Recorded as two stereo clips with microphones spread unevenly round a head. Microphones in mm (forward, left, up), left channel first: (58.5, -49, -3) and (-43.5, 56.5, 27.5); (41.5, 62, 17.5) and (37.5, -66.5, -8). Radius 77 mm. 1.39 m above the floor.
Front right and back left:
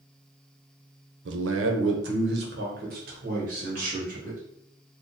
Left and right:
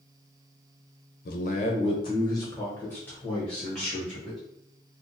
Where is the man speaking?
125° left, 0.6 m; by 4.4 s straight behind, 1.9 m.